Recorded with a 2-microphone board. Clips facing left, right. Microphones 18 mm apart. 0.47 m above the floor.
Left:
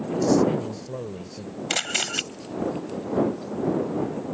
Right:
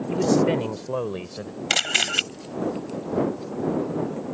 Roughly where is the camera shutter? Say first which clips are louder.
Right 4 dB; right.